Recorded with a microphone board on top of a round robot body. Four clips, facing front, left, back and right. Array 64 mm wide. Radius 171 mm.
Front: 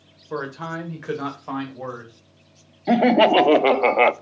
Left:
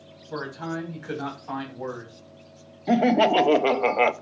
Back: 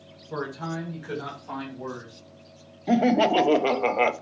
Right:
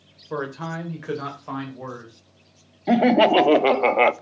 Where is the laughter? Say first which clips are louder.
Right 3 dB, front 5 dB; 30° right, 0.6 m.